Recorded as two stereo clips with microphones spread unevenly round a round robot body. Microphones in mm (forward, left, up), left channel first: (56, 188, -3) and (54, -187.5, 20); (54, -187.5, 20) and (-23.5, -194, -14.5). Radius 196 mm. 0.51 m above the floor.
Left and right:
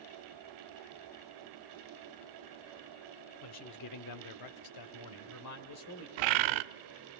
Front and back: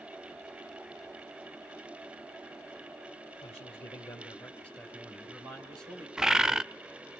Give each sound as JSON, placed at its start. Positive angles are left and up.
{"t": 3.4, "sound": "a man speaking", "azimuth_deg": 45, "distance_m": 1.5}
{"t": 6.2, "sound": "a bird", "azimuth_deg": -105, "distance_m": 0.6}